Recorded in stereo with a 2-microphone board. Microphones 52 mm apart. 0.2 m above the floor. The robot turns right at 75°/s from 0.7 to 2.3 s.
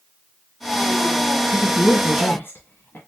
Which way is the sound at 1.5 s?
15° left (ahead or behind).